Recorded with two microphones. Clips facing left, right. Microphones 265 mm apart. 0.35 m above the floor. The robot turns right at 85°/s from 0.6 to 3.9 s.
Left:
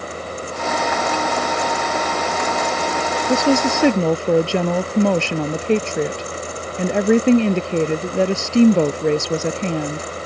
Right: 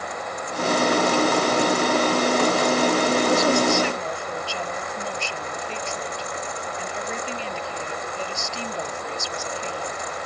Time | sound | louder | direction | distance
3.3 | a woman speaking | left 8 dB | 20° left | ?